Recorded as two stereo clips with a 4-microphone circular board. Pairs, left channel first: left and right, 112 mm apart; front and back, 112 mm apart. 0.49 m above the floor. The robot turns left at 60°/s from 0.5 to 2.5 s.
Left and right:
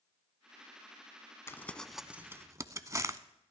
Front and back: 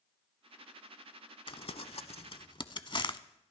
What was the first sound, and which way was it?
Crumpling, 30° left.